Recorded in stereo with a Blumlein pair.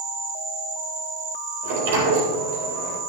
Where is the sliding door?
55° right, 3.5 m.